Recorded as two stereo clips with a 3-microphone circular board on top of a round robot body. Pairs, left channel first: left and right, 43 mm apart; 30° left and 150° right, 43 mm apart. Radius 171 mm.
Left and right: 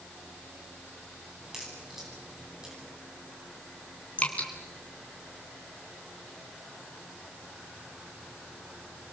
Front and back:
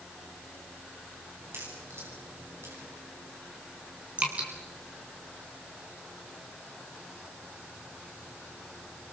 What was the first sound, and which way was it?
A crack, 170° right.